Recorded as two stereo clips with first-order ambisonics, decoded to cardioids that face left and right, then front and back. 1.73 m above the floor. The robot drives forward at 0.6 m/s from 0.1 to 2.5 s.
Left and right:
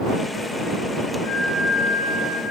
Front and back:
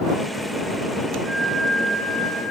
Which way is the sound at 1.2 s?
115° left.